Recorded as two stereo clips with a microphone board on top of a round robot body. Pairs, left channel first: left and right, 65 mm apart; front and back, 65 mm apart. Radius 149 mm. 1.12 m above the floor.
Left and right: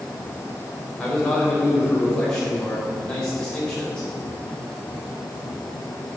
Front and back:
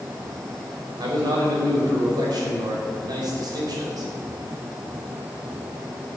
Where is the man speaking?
170° left, 4.5 m.